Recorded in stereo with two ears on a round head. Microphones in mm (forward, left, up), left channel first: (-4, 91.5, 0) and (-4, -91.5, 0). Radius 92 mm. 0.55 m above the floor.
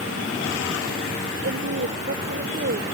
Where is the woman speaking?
50° right (ahead or behind).